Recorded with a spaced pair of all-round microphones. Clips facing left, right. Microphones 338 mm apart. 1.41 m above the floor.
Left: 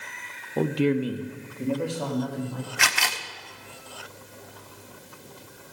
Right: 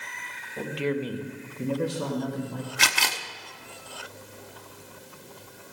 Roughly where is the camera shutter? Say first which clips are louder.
Even; right.